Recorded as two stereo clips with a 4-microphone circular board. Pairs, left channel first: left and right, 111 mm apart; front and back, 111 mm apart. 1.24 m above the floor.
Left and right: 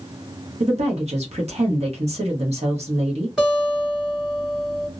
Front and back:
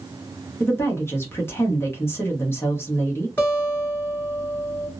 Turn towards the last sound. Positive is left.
turn(degrees=-25)